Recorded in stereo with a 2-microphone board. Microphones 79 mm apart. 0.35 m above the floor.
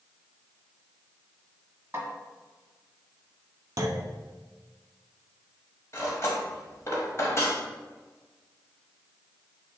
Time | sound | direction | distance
1.9 | a snare drum | 35° right (ahead or behind) | 1.4 m
3.8 | a clunk | 50° right (ahead or behind) | 0.6 m
5.9 | cutlery clinking | 40° left (ahead or behind) | 1.0 m